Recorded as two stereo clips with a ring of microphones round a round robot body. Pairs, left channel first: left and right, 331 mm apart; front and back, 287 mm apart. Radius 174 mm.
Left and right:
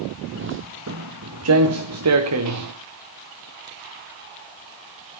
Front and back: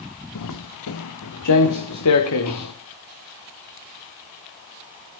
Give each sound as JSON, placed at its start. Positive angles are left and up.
{"t": 0.3, "sound": "footsteps", "azimuth_deg": -35, "distance_m": 0.9}